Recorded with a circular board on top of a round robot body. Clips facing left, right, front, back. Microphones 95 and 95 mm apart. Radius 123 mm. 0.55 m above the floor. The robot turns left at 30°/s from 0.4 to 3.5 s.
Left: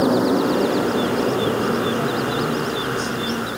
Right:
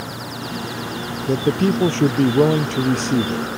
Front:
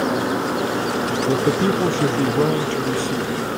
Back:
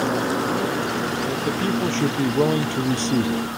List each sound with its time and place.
0.0 s a motorcycle: 85° left; by 3.6 s straight ahead
1.3 s a man speaking: 60° right; by 3.5 s 125° right